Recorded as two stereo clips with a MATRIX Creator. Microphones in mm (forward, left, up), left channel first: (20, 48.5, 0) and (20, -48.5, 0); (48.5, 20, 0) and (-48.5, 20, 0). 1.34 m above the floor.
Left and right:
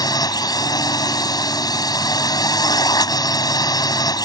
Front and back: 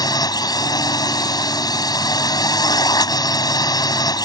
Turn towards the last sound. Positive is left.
turn(degrees=45)